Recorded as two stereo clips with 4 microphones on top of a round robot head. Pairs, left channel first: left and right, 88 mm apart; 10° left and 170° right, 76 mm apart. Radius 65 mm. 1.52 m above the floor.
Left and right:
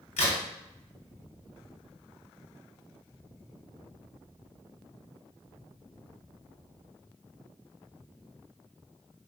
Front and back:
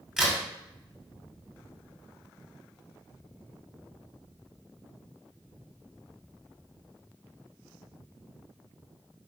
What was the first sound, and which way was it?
A crack, 110° left.